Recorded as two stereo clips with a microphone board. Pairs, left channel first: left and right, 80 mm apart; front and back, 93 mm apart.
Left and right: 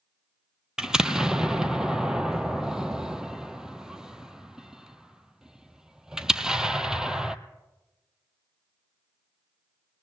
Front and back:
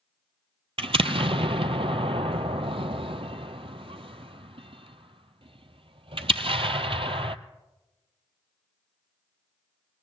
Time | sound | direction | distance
0.8 | an explosion | 170° right | 0.6 m